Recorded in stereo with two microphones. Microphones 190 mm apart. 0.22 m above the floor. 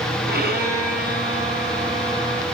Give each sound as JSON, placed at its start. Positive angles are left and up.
{"t": 0.3, "sound": "a violin", "side_deg": -55, "distance_m": 2.5}